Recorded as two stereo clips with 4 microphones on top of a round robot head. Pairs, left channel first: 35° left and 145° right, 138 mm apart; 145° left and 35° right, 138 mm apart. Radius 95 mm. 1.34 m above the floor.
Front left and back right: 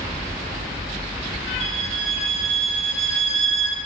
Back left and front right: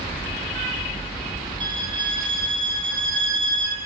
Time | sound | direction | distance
1.6 | a violin | 95° right | 6.5 m